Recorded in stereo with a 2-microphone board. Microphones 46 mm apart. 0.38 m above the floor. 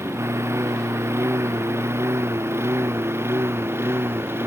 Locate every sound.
0.0 s a lawn mower: 80° right; by 4.5 s 60° right (ahead or behind)